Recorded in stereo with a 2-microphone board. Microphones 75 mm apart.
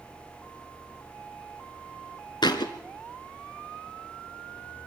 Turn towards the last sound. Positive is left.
turn(degrees=75)  # may be behind; listen again after turning